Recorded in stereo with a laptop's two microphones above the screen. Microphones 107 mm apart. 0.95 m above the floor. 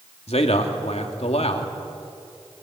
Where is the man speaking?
70° left (ahead or behind), 2.5 m.